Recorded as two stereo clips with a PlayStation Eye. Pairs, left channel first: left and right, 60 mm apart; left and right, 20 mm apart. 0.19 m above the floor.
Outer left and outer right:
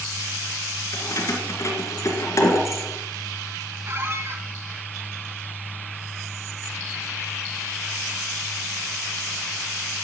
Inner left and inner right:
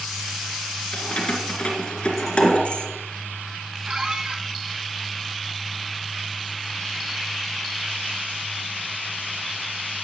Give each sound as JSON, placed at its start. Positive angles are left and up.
{"t": 0.9, "sound": "keys jangling", "side_deg": 55, "distance_m": 2.0}
{"t": 3.9, "sound": "a squeak", "side_deg": -40, "distance_m": 1.4}